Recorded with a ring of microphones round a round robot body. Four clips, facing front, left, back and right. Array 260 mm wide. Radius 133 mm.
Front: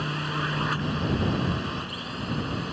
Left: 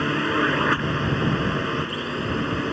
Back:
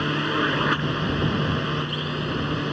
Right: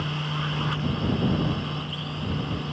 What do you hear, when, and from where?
0.0 s a drone: 120° left